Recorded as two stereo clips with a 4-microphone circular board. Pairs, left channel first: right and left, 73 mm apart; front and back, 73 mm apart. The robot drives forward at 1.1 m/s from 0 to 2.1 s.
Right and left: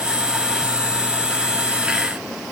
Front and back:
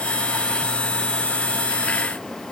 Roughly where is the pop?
I don't hear a pop.